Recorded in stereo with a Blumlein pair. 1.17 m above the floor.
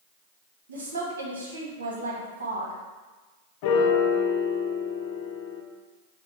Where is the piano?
45° left, 0.6 m.